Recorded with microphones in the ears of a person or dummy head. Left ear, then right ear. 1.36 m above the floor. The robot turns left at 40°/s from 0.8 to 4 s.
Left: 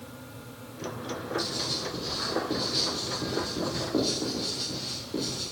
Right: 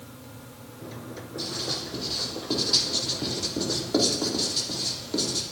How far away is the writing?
About 3 m.